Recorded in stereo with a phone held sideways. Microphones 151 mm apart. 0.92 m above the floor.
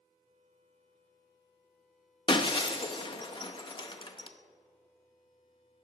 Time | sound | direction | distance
2.3 | breaking glass | 35° left (ahead or behind) | 0.5 m